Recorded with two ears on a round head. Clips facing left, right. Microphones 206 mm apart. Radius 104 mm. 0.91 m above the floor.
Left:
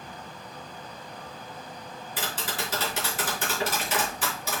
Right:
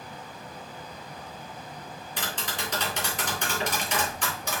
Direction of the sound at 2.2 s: 5° left (ahead or behind).